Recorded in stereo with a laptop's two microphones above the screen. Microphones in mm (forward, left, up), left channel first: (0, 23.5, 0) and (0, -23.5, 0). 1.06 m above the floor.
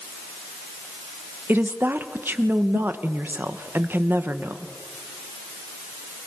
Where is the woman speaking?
50° right (ahead or behind), 1.0 m.